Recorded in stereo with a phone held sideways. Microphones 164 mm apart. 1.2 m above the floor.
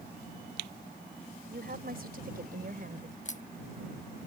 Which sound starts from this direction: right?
A woman speaking, at 1.5 s.